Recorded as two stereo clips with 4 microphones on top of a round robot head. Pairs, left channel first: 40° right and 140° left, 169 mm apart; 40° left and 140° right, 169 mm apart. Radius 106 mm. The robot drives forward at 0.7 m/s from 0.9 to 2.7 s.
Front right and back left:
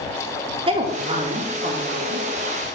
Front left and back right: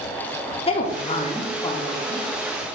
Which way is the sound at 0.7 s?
90° left.